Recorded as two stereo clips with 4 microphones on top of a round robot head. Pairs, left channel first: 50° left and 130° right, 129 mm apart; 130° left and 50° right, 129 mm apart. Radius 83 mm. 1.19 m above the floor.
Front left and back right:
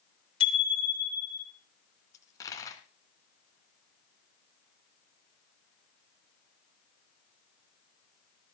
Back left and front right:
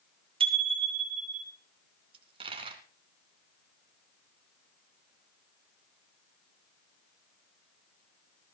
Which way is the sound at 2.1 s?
10° right.